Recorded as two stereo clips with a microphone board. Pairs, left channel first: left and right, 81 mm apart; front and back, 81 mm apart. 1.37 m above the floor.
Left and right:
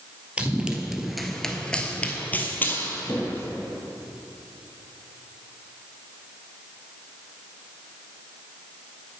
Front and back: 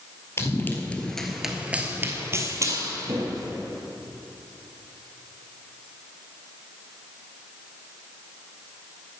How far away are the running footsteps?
About 1.6 m.